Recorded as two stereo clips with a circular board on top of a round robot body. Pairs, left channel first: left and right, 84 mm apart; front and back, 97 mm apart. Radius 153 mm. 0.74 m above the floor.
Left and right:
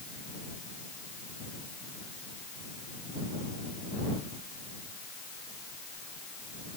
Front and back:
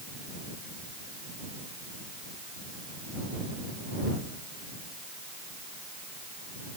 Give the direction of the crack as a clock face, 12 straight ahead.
No crack in this recording.